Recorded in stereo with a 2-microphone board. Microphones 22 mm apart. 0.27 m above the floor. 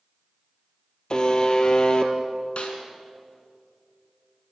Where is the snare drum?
55° left (ahead or behind), 3 m.